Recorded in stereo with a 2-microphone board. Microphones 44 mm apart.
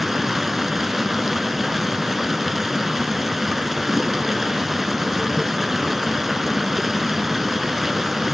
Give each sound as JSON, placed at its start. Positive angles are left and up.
{"t": 0.0, "sound": "running water", "side_deg": -5, "distance_m": 0.9}